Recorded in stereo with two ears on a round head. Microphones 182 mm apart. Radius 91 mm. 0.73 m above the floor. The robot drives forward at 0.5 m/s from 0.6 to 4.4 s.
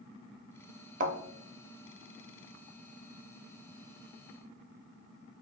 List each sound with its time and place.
1.0 s a thud: 40° right (ahead or behind), 0.7 m